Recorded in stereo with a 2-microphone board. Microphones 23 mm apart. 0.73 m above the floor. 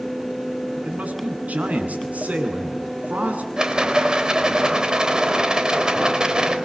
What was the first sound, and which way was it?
A man speaking, 75° right (ahead or behind).